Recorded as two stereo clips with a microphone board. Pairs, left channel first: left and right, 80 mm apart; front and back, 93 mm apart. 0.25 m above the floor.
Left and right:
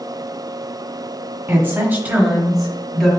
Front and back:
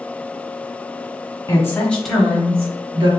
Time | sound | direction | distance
1.5 | a woman speaking | 45° right | 1.5 m